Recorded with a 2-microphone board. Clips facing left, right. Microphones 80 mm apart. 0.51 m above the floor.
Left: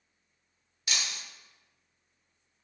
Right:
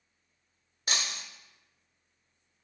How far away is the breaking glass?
About 0.8 m.